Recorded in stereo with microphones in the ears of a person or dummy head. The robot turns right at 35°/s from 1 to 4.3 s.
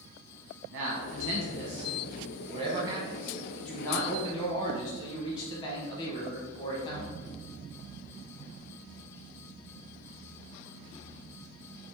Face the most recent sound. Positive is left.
turn(degrees=35)